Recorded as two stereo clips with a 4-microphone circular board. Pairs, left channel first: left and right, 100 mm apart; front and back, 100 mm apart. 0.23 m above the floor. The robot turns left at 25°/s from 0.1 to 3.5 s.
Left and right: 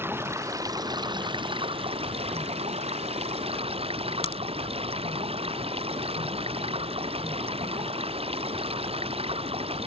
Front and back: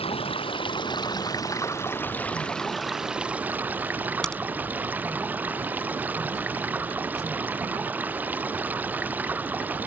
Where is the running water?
20° right; by 9.9 s 105° right.